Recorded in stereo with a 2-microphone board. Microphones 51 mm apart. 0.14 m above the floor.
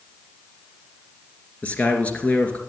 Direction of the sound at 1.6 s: 30° left (ahead or behind).